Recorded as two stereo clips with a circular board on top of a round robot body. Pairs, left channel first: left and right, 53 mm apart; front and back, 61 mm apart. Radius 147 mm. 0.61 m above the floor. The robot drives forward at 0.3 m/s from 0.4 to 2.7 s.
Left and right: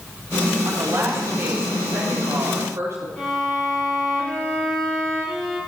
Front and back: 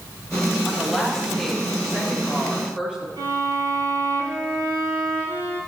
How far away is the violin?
About 4 m.